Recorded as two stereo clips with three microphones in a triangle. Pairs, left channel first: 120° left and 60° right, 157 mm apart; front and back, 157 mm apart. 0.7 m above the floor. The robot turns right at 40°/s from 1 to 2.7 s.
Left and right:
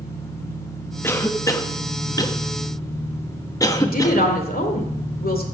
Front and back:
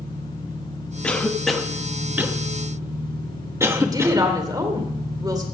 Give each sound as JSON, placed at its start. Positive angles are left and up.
{"t": 0.0, "sound": "an engine running", "azimuth_deg": 100, "distance_m": 7.5}
{"t": 1.0, "sound": "a cough", "azimuth_deg": 70, "distance_m": 1.0}
{"t": 3.8, "sound": "a woman speaking", "azimuth_deg": 115, "distance_m": 2.0}